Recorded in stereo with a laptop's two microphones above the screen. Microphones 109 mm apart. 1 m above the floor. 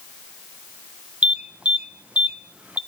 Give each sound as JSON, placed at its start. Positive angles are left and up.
{"t": 1.2, "sound": "an alarm", "side_deg": -10, "distance_m": 0.6}